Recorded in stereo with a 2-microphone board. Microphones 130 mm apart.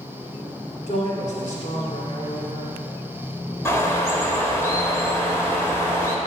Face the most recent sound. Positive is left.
turn(degrees=20)  # may be behind; listen again after turning